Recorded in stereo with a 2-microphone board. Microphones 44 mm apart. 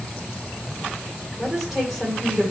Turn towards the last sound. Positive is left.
turn(degrees=-5)  # may be behind; listen again after turning